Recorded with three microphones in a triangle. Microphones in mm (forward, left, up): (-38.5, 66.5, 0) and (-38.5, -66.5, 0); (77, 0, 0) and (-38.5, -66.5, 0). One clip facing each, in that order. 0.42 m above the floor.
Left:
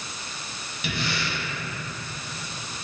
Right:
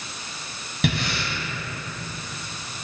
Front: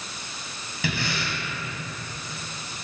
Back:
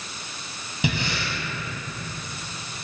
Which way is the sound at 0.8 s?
80° right.